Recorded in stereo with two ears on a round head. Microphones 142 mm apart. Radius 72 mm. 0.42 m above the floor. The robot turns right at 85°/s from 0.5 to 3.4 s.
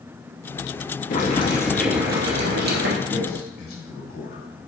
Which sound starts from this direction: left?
A man speaking, at 3.0 s.